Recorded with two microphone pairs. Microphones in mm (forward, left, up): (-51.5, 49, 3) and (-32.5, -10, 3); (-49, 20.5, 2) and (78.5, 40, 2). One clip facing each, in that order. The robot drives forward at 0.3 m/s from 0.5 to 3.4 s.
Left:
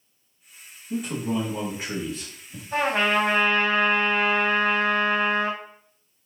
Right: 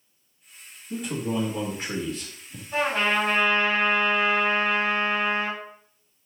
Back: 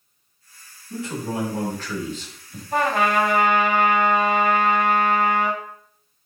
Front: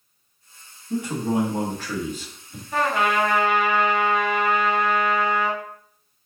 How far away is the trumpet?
About 2.5 m.